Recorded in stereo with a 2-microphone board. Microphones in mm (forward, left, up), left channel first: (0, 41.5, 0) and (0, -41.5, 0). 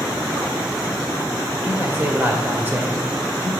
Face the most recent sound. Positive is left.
turn(degrees=-25)  # may be behind; listen again after turning